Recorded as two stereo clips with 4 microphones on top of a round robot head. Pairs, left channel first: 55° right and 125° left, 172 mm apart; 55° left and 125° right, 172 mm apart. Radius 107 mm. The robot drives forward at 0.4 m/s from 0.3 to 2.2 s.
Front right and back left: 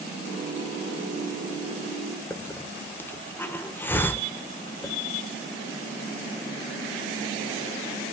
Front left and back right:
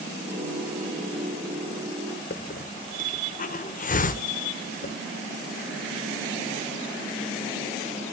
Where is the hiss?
25° left, 1.2 m.